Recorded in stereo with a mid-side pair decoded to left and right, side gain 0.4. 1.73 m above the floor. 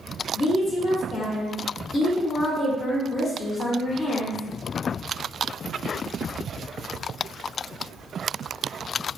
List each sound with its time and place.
0.3 s a woman speaking: 30° left, 0.9 m